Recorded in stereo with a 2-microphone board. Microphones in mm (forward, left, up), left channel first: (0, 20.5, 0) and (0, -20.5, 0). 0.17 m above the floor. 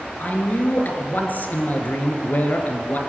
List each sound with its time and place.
0.2 s a man speaking: 45° left (ahead or behind), 3 m